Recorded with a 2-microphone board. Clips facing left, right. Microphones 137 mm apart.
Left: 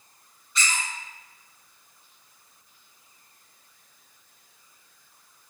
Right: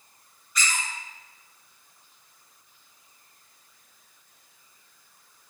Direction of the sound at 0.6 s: 30° left (ahead or behind).